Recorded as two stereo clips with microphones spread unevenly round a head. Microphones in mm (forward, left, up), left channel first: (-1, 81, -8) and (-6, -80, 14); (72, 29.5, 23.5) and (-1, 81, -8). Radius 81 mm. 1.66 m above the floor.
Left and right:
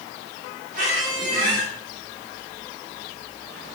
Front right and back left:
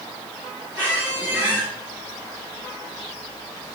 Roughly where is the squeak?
Behind right.